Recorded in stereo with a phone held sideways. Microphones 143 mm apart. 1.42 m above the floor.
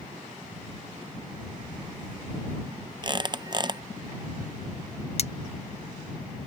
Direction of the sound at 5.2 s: 45° left (ahead or behind).